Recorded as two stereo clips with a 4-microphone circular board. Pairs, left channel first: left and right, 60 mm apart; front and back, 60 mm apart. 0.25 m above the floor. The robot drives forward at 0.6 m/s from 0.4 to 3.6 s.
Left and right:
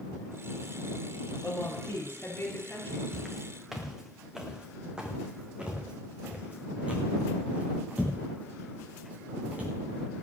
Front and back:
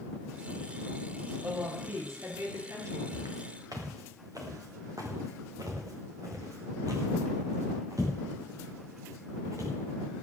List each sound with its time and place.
1.4 s a woman speaking: 140° left, 6 m; by 3.0 s 145° left, 7 m
3.1 s footsteps: straight behind, 3.5 m; by 9.7 s 155° right, 8.5 m